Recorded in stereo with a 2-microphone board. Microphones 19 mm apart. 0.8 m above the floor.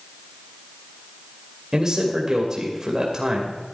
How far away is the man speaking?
About 2.5 m.